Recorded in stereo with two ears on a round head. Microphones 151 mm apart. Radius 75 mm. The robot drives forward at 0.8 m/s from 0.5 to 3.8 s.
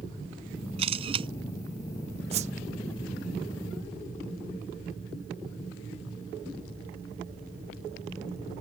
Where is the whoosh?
40° right (ahead or behind); by 2.5 s 45° right (ahead or behind).